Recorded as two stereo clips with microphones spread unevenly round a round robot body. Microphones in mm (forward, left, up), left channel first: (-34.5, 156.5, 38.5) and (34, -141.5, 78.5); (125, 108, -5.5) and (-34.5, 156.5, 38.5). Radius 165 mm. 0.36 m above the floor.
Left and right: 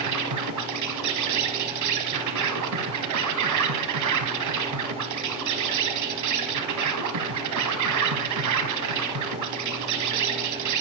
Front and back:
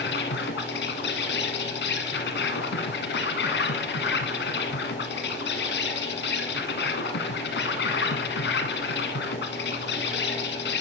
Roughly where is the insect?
Ahead right.